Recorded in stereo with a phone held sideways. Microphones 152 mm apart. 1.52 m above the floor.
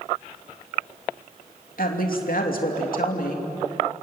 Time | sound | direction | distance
1.8 | a woman speaking | 70° left (ahead or behind) | 3 m